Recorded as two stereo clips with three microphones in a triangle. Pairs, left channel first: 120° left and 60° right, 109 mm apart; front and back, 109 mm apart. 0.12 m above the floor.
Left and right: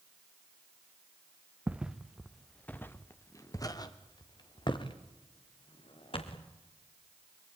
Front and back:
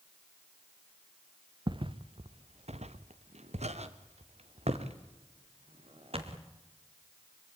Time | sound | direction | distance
1.7 | footsteps | 135° right | 1.2 m